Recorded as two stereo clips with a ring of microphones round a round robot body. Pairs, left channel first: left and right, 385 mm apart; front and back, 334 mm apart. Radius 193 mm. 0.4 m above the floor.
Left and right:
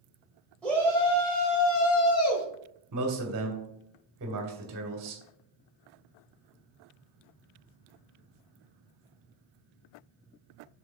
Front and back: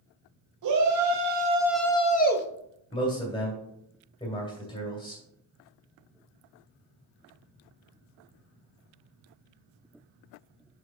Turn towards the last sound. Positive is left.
turn(degrees=-65)